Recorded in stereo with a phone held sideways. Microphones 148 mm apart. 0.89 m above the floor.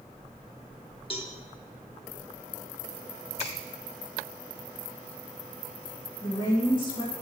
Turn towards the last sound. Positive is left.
turn(degrees=35)  # may be behind; listen again after turning